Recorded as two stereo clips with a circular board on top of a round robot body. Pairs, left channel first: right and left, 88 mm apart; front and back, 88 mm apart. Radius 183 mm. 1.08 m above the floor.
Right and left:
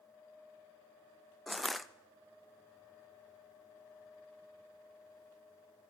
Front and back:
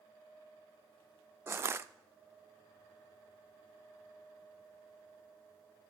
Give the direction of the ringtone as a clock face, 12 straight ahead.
No ringtone in this recording.